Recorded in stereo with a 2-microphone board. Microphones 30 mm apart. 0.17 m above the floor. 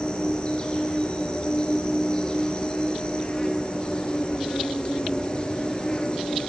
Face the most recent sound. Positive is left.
turn(degrees=30)  # may be behind; listen again after turning